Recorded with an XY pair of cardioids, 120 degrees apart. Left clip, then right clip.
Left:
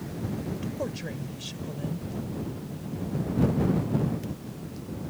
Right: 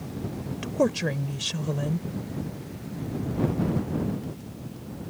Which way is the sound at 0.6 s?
55° right.